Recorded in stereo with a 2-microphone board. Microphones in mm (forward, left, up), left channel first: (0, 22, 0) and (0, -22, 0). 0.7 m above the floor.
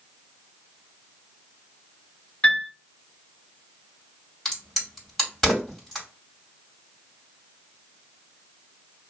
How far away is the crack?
About 2 m.